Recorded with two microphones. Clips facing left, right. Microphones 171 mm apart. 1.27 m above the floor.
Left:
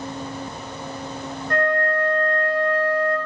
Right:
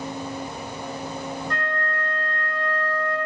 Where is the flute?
55° left (ahead or behind), 1.7 m.